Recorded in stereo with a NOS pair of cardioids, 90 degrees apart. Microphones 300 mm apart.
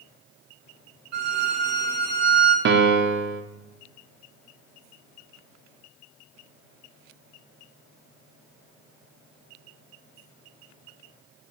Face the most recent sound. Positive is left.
turn(degrees=-40)